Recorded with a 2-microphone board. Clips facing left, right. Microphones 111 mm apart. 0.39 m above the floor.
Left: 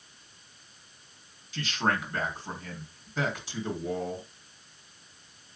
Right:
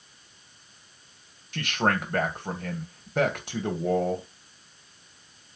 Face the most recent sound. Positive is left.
turn(degrees=-60)  # may be behind; listen again after turning